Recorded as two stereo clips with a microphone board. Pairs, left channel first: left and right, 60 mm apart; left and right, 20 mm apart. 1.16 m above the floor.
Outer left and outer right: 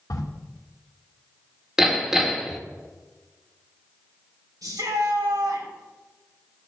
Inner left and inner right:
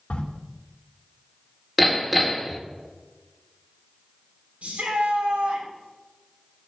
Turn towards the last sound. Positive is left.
turn(degrees=-85)